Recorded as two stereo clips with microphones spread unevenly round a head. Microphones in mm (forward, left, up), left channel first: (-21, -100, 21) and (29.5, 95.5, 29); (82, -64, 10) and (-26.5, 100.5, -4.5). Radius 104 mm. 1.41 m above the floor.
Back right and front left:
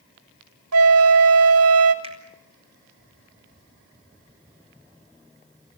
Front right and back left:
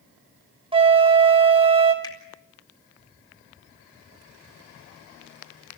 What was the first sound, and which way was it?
A flute, 60° left.